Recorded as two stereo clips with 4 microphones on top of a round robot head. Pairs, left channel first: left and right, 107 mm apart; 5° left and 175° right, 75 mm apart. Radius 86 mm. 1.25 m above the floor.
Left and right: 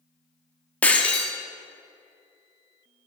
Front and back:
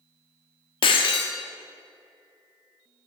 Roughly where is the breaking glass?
Ahead.